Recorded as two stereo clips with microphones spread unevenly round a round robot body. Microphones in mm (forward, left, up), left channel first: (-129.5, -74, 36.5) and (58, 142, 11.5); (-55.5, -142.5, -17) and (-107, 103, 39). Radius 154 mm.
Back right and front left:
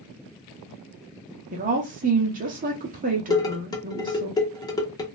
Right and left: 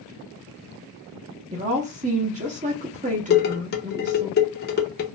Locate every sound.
1.5 s a woman speaking: 40° left, 0.8 m
3.3 s dishes clattering: 50° right, 0.8 m